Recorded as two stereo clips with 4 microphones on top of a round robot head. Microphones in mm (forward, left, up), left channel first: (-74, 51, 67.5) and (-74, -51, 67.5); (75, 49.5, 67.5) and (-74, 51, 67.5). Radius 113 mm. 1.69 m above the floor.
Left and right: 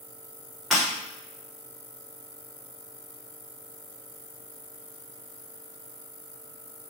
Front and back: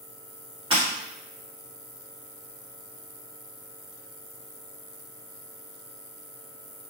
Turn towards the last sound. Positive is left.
turn(degrees=175)